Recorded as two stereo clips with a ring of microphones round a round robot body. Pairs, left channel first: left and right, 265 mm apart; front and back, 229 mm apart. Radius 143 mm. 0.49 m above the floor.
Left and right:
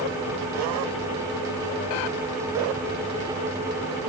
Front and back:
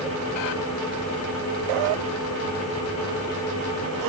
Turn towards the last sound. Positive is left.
No sound to turn to.